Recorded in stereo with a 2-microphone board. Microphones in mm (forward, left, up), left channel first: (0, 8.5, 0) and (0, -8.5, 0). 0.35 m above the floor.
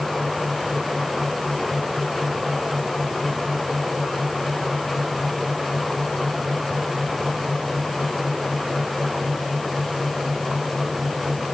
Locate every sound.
Only background noise.